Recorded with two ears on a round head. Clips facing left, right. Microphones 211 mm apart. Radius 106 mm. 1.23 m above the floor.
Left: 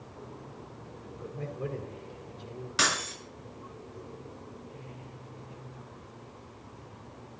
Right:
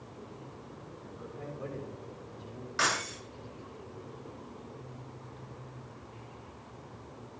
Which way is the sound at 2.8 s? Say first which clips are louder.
Left 1 dB; 50° left (ahead or behind).